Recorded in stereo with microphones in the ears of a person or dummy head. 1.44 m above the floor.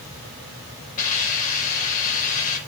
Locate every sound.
1.0 s a hiss: 40° left (ahead or behind), 5.5 m